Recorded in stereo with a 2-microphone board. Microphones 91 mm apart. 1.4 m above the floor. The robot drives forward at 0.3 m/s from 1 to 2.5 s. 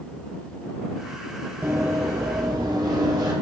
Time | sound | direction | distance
1.6 | running footsteps | 35° right (ahead or behind) | 1.6 m